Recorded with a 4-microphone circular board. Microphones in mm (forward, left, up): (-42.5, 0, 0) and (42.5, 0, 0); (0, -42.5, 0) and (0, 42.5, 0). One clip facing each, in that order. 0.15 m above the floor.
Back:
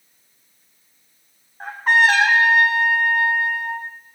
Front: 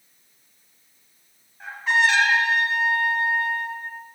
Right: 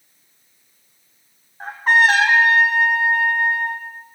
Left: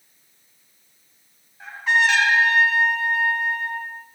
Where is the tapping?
I don't hear tapping.